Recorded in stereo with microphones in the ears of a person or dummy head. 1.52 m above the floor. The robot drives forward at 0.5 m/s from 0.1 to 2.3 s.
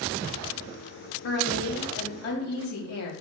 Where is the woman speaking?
70° left (ahead or behind), 4 m; by 3.1 s 65° left (ahead or behind), 4 m.